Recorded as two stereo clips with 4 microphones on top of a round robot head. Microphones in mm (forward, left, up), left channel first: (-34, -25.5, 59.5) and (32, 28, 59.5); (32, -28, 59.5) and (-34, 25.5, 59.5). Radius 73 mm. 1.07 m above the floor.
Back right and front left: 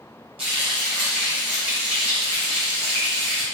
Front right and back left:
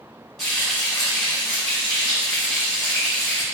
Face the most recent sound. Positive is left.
turn(degrees=50)